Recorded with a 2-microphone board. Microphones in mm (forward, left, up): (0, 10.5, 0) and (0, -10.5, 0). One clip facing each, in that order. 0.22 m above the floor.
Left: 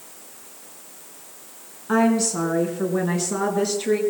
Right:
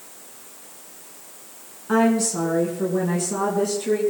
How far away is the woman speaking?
About 2.5 m.